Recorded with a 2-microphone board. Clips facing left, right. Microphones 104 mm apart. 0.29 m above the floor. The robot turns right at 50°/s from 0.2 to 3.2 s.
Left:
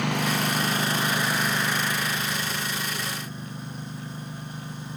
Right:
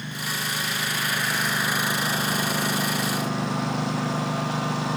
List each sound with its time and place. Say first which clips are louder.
0.0 s a lawn mower: left 7 dB; 65° left (ahead or behind); by 5.0 s 90° right